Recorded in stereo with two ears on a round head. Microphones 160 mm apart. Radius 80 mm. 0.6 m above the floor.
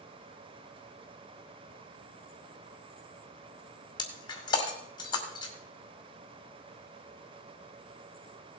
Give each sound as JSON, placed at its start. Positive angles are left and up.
{"t": 4.0, "sound": "breaking glass", "side_deg": 25, "distance_m": 2.0}